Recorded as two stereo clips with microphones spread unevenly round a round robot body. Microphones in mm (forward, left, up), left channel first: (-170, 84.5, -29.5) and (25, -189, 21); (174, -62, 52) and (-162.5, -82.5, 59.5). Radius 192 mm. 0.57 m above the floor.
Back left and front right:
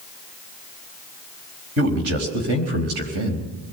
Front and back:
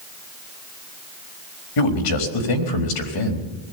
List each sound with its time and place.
1.8 s a man speaking: 5° left, 4.5 m